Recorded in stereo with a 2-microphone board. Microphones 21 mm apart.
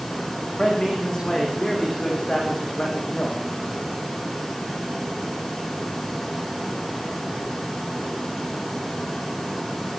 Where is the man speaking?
40° left (ahead or behind), 8.5 m; by 3.4 s 50° left (ahead or behind), 8.5 m.